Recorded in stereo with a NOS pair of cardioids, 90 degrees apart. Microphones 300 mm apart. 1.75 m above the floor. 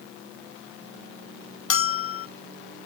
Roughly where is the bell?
Ahead left.